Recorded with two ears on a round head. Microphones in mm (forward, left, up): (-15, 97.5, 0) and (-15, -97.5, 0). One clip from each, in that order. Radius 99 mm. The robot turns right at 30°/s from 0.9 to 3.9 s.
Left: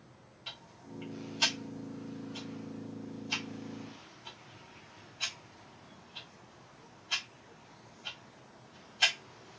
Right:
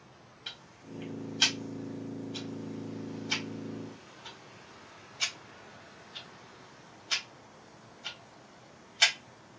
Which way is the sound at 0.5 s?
10° right (ahead or behind).